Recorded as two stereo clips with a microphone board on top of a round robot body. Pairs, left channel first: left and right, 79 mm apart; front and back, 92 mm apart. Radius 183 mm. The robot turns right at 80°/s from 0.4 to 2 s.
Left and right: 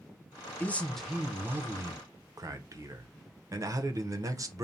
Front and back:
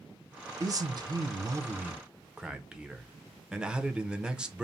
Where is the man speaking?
145° left, 0.7 m; by 4.7 s 100° right, 0.7 m.